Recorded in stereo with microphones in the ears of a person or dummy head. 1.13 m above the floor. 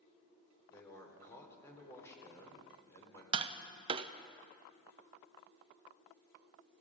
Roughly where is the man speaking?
Centre.